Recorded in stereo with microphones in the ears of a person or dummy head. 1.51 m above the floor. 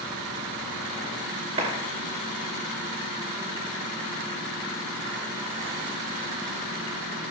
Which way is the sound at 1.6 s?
35° right (ahead or behind).